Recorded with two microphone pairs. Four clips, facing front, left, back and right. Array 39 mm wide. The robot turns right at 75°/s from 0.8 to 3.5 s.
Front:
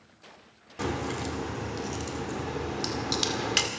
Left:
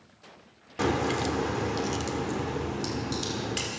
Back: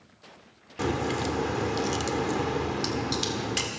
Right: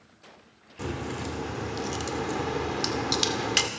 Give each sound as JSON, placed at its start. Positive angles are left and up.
{"t": 0.8, "sound": "a crack", "azimuth_deg": 100, "distance_m": 1.6}